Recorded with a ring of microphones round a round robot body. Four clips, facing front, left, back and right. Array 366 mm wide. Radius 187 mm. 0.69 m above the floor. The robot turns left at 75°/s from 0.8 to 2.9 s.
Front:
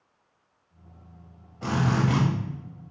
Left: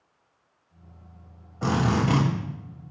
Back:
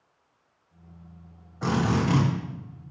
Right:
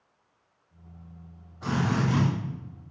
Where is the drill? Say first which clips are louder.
Left 3 dB, back 1 dB; 105° left, 3.5 m; by 2.2 s 60° left, 3.5 m.